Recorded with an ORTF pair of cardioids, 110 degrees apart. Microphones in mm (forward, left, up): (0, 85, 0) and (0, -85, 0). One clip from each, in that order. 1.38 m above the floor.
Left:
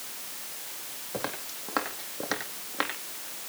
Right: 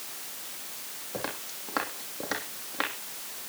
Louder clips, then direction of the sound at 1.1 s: Left 1 dB; 10° left.